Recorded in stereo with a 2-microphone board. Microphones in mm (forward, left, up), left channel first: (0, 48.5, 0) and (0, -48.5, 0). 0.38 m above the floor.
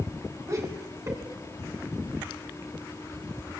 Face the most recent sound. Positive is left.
turn(degrees=-35)  # may be behind; listen again after turning